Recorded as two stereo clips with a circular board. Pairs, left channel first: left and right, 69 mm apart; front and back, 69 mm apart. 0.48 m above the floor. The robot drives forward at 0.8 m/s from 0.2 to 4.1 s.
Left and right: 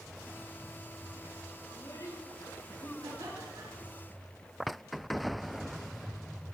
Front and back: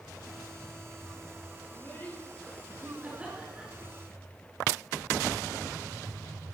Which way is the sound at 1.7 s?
55° left.